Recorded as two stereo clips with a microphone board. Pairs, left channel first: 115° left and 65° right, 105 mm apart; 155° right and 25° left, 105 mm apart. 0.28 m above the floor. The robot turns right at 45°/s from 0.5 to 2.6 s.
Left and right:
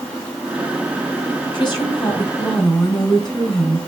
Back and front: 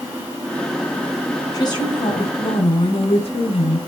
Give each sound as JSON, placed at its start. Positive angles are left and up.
{"t": 1.5, "sound": "a woman speaking", "azimuth_deg": 150, "distance_m": 3.5}